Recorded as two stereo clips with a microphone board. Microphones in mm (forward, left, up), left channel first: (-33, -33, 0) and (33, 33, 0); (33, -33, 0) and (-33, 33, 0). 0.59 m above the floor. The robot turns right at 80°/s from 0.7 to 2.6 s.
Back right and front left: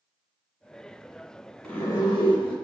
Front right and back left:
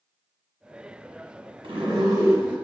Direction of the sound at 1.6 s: 150° left.